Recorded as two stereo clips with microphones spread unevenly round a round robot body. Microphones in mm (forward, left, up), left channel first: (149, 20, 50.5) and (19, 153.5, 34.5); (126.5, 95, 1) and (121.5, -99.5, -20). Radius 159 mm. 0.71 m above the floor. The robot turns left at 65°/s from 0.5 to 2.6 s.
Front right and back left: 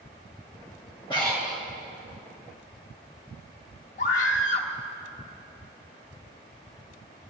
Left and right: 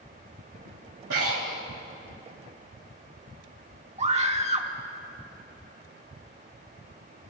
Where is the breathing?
120° right, 1.5 m; by 1.6 s 155° right, 1.5 m.